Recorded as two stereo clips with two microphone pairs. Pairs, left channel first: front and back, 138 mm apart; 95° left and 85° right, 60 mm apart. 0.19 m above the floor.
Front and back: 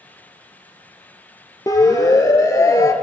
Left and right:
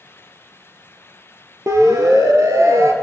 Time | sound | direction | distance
1.7 | a siren | 65° right | 3.5 m